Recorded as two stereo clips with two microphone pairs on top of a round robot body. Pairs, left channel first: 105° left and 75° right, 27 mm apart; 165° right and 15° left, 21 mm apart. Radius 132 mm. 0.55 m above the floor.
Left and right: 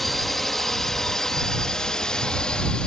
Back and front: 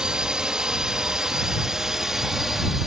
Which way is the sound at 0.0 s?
30° left.